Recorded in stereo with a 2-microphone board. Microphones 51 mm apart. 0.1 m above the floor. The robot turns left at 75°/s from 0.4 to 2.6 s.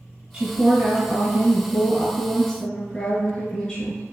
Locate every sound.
0.3 s a woman speaking: 20° right (ahead or behind), 1.3 m; by 4.0 s 15° left (ahead or behind), 1.3 m